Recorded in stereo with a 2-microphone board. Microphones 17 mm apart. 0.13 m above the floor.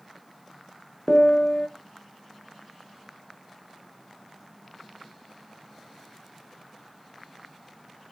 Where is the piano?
60° left (ahead or behind), 0.6 m.